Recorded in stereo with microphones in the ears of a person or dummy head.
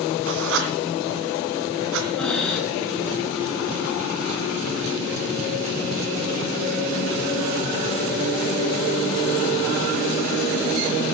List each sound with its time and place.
0.3 s writing: 60° right (ahead or behind), 2.5 m
2.2 s breathing: centre (ahead or behind), 3 m